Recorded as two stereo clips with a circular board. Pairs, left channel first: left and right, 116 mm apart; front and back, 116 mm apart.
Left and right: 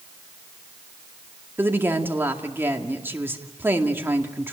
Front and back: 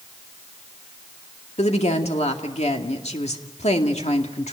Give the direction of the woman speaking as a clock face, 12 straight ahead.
1 o'clock.